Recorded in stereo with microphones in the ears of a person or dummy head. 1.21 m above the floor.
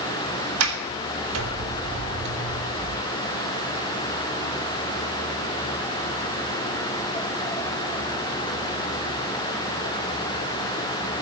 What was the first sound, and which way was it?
A sliding door, 85° right.